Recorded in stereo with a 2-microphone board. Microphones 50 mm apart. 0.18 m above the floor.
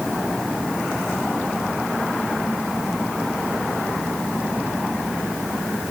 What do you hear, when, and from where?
Only background noise.